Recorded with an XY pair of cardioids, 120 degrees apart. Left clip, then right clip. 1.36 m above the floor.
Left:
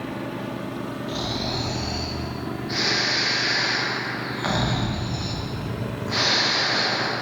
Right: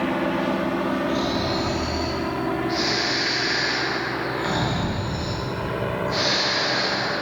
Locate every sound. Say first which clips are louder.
1.1 s snoring: right 4 dB; 20° left, 1.4 m